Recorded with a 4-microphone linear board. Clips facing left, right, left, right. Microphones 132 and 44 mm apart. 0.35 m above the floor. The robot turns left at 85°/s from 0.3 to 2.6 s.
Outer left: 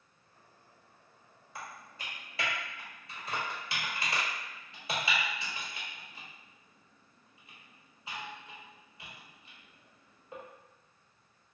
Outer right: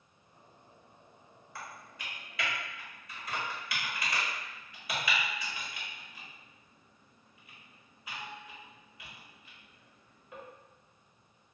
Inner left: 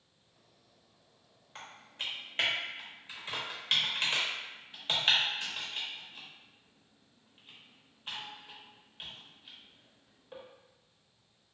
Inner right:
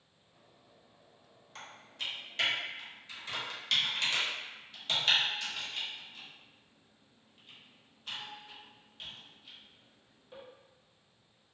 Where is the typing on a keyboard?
20° left (ahead or behind), 0.8 m; by 10.4 s 30° left (ahead or behind), 0.8 m.